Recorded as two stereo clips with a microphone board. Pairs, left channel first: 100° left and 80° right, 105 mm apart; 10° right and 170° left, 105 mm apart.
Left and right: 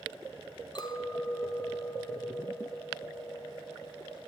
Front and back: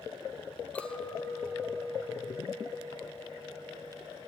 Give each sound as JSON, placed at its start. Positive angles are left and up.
{"t": 0.8, "sound": "a clink", "azimuth_deg": 65, "distance_m": 0.9}